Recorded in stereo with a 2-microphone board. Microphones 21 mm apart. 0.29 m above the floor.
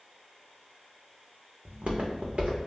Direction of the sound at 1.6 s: 70° right (ahead or behind).